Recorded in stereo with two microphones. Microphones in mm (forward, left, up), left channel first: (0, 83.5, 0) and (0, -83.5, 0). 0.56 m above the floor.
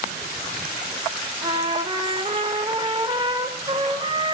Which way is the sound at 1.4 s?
30° right (ahead or behind).